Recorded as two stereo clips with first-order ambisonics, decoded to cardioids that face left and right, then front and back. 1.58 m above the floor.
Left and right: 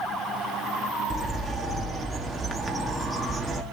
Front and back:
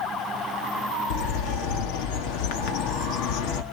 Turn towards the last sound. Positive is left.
turn(degrees=-5)